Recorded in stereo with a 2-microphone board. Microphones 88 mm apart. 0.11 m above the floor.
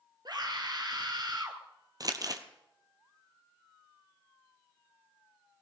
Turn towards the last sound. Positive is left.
turn(degrees=-45)  # may be behind; listen again after turning